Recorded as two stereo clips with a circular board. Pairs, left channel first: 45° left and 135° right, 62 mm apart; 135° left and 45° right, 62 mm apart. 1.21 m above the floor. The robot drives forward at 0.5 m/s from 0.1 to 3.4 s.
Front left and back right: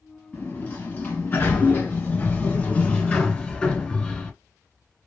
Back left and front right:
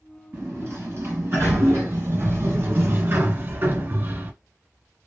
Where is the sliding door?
5° right, 2.5 m; by 4.3 s 20° right, 1.2 m.